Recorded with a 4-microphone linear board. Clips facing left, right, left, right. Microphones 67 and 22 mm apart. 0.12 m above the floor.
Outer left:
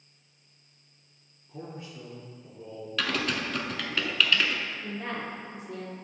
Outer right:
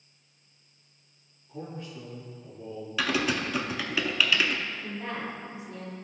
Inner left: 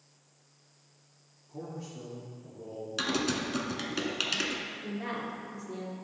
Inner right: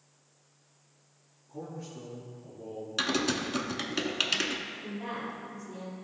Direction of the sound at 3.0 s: 10° right (ahead or behind).